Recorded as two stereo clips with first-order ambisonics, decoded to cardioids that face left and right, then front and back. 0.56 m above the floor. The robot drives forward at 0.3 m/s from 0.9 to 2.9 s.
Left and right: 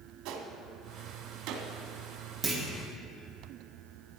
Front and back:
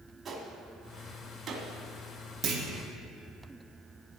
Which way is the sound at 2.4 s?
150° right.